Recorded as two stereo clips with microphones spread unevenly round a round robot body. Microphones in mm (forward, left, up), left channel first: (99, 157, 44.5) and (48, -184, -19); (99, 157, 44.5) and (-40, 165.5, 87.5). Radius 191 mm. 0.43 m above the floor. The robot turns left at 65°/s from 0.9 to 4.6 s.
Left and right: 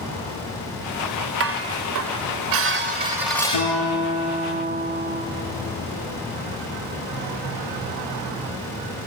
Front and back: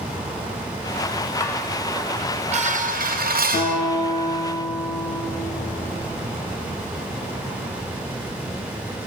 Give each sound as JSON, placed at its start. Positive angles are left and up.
{"t": 1.4, "sound": "dishes clattering", "azimuth_deg": -60, "distance_m": 1.1}
{"t": 3.5, "sound": "a guitar", "azimuth_deg": 45, "distance_m": 8.0}